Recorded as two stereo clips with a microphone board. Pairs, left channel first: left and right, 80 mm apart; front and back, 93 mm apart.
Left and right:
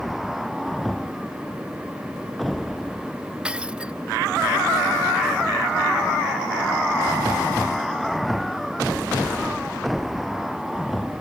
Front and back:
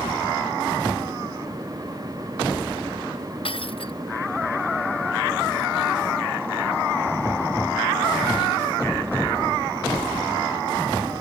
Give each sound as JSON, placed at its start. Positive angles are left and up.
{"t": 3.5, "sound": "breaking glass", "azimuth_deg": -10}